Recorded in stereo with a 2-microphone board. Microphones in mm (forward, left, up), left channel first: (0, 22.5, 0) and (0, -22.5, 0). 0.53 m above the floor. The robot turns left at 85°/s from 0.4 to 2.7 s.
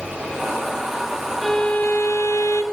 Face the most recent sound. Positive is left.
turn(degrees=65)